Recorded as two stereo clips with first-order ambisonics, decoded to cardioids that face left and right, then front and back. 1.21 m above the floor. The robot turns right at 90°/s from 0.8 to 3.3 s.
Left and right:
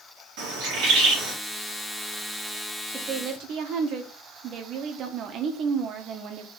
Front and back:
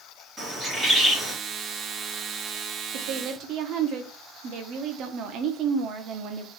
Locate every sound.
0.4 s a bird: 100° right, 1.5 m; by 1.3 s 50° right, 1.5 m
2.9 s a woman speaking: 170° right, 0.7 m; by 6.5 s 140° right, 0.7 m